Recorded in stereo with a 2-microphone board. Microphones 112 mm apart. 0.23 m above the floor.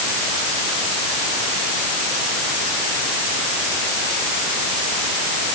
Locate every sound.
Only background noise.